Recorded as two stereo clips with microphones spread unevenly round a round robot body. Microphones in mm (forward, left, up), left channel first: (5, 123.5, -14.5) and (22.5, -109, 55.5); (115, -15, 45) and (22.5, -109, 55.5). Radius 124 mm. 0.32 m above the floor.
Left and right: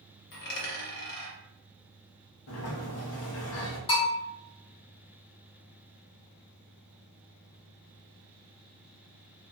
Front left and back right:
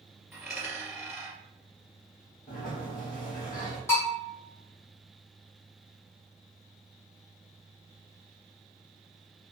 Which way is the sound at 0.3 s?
135° left.